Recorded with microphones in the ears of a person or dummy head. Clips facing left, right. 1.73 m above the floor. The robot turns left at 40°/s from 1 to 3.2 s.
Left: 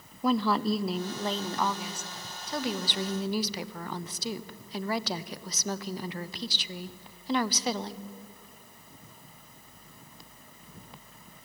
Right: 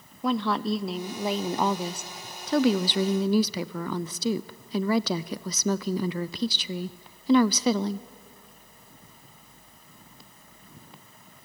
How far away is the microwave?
No microwave in this recording.